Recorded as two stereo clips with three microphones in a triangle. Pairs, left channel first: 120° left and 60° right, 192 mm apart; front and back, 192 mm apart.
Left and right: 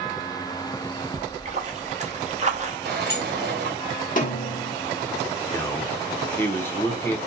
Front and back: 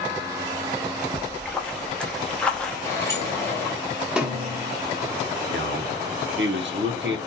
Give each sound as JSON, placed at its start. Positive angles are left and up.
{"t": 1.1, "sound": "a splash", "azimuth_deg": -85, "distance_m": 0.6}
{"t": 2.9, "sound": "a sliding door", "azimuth_deg": -75, "distance_m": 1.2}
{"t": 4.2, "sound": "a snare drum", "azimuth_deg": 95, "distance_m": 0.9}
{"t": 5.5, "sound": "a man speaking", "azimuth_deg": -160, "distance_m": 1.0}